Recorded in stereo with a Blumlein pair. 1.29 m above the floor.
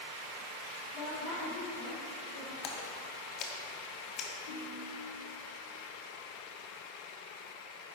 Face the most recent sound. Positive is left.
turn(degrees=55)